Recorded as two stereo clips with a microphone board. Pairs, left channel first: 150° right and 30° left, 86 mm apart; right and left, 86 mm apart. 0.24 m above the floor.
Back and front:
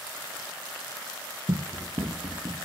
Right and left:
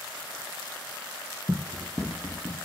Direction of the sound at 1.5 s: Straight ahead.